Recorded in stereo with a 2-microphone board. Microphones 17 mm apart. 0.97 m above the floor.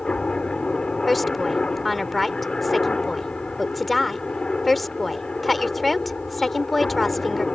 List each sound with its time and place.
0.0 s a helicopter: 65° left (ahead or behind)
1.1 s a woman speaking: 5° left (ahead or behind)